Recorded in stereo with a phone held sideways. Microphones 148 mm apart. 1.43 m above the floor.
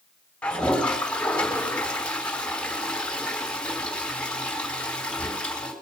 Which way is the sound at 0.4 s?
10° left (ahead or behind).